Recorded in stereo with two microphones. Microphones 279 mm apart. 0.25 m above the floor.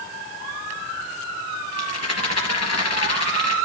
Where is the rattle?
65° left (ahead or behind), 3 m.